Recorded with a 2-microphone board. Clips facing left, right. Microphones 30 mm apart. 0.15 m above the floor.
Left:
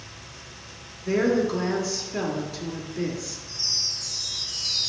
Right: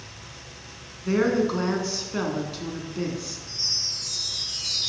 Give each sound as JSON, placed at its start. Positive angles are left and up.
{"t": 1.1, "sound": "a woman speaking", "side_deg": -25, "distance_m": 1.2}
{"t": 3.5, "sound": "a chime", "side_deg": -65, "distance_m": 3.0}